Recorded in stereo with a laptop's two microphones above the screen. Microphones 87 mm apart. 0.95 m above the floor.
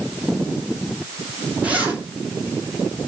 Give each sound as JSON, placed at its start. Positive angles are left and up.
{"t": 1.6, "sound": "a zipper", "side_deg": -15, "distance_m": 3.0}